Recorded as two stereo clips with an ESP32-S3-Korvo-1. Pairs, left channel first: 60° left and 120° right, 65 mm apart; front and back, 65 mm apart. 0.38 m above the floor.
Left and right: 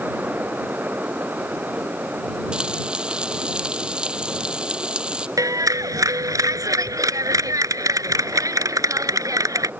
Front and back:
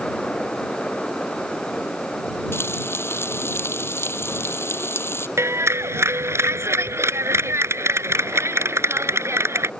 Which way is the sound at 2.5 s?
45° right.